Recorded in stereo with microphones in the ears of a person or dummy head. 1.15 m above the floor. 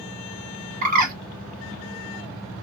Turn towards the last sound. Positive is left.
turn(degrees=-50)  # may be behind; listen again after turning